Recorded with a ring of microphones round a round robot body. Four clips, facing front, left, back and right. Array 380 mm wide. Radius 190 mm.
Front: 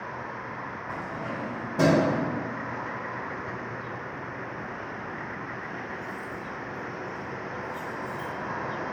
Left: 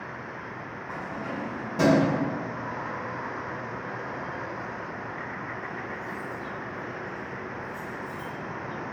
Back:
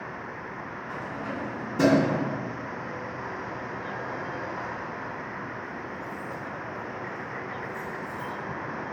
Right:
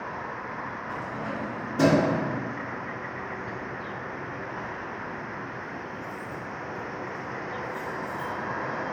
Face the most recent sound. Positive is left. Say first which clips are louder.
# left 1 dB, back 1 dB
turn(degrees=15)